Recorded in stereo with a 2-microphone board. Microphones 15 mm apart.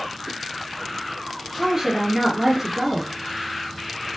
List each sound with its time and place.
1.6 s a woman speaking: 25° right (ahead or behind), 2 m